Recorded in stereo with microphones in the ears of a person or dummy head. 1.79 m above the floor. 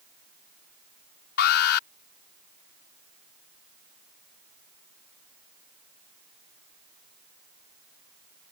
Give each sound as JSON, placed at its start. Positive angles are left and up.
{"t": 1.4, "sound": "an alarm", "side_deg": 60}